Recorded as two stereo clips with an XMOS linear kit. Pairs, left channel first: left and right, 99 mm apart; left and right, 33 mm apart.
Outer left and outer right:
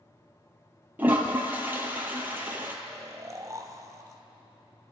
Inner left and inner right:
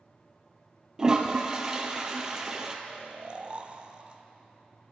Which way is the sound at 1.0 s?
20° right (ahead or behind).